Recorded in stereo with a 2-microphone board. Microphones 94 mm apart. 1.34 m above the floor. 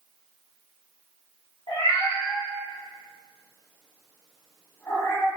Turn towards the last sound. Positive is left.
turn(degrees=25)  # may be behind; listen again after turning